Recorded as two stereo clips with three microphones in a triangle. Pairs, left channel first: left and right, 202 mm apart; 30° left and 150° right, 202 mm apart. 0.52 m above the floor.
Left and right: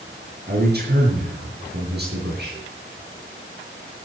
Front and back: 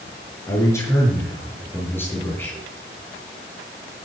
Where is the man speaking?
45° right, 7.5 m; by 2.6 s 50° right, 8.5 m.